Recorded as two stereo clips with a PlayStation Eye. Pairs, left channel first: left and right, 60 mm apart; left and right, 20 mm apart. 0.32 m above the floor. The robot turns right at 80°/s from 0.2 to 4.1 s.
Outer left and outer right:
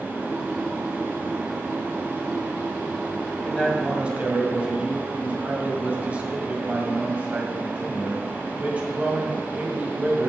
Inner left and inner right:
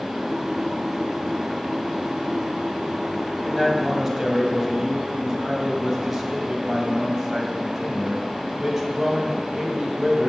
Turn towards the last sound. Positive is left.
turn(degrees=-150)